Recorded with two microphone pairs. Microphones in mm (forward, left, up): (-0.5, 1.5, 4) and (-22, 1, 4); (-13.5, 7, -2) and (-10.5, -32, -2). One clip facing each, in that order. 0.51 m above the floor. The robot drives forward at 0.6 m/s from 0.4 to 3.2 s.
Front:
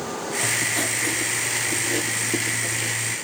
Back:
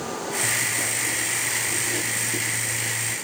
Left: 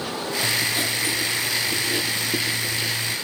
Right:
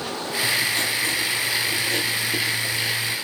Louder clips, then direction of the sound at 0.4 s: Front 2 dB, right 2 dB; 15° left.